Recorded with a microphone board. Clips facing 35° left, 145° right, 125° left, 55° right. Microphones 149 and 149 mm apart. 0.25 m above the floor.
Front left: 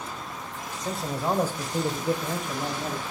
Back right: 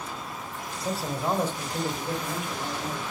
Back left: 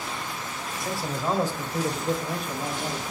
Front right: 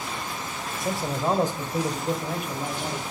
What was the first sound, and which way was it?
A man speaking, 80° right.